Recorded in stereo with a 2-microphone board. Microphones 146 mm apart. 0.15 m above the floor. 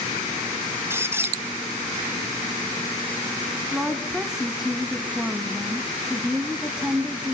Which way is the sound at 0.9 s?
15° right (ahead or behind).